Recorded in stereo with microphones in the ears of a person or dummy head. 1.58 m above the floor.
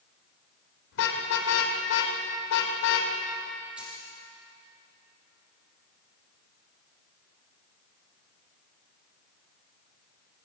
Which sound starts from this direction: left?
A car horn, at 0.9 s.